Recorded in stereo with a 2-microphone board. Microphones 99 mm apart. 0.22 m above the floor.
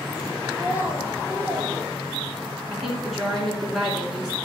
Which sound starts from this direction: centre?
A woman speaking, at 2.7 s.